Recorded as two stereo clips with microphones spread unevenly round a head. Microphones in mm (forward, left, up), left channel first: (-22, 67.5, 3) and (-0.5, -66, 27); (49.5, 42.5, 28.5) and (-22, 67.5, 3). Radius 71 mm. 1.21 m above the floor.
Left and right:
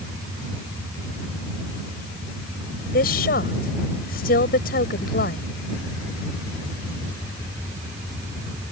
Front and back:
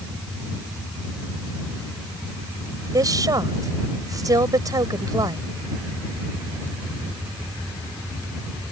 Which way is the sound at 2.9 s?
120° left.